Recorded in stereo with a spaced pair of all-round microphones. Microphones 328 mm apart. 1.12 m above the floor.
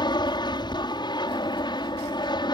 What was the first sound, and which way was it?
An aircraft, 15° left (ahead or behind).